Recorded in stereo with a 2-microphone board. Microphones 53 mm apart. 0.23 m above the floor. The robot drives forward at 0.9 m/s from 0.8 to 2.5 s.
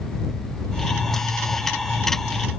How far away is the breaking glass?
No breaking glass in this recording.